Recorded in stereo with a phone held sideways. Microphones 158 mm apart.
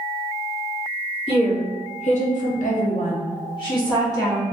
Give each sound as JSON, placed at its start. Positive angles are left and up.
{"t": 1.3, "sound": "a woman speaking", "side_deg": 35, "distance_m": 1.2}